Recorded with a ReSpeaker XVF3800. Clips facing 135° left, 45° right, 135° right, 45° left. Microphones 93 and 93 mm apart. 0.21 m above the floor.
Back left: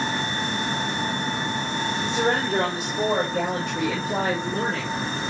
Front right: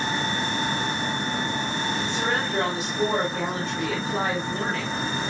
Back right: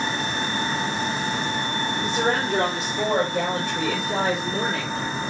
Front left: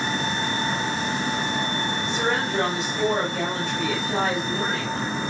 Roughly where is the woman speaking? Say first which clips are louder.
Back left 3 dB, back right 3 dB; behind.